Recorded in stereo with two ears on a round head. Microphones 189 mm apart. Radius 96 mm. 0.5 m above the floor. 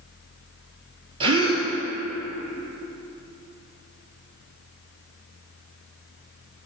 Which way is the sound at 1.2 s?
25° right (ahead or behind).